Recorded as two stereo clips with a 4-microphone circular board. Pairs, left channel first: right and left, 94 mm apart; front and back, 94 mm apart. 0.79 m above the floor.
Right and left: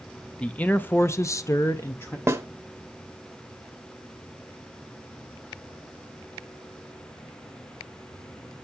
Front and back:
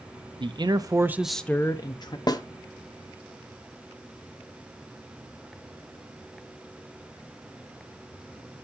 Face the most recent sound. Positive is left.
turn(degrees=35)